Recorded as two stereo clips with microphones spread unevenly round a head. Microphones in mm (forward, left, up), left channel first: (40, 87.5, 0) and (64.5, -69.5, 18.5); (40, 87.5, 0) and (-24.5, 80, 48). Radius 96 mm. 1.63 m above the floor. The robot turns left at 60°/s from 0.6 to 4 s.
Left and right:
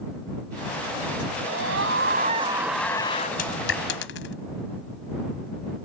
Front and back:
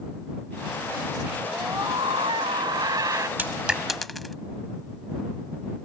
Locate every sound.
1.4 s a scream: 85° right; by 3.3 s 160° left
3.4 s a dropped coin: 150° left; by 4.3 s 115° left